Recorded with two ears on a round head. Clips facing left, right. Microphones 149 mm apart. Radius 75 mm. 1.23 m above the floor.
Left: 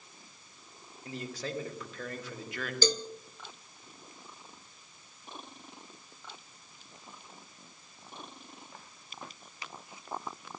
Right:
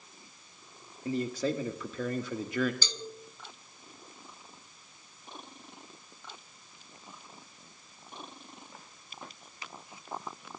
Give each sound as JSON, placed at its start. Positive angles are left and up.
{"t": 1.1, "sound": "a man speaking", "side_deg": -85, "distance_m": 2.0}
{"t": 2.8, "sound": "a cowbell", "side_deg": 40, "distance_m": 0.8}